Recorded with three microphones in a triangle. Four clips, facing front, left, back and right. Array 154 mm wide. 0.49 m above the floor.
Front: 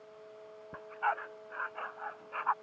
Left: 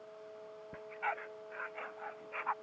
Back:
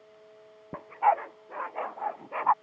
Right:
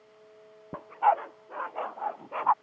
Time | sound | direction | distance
0.7 | a dog barking | 130° right | ?